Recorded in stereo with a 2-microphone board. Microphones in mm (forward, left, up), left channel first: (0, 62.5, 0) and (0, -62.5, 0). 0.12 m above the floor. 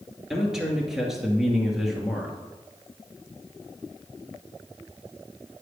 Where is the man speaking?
5° right (ahead or behind), 2.5 m.